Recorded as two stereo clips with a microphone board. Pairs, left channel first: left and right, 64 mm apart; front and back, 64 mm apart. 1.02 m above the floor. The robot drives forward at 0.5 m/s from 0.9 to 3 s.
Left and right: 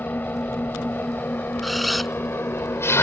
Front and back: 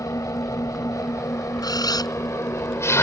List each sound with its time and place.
0.0 s an engine running: 30° left; by 3.0 s 45° left
1.6 s a camera shutter: straight ahead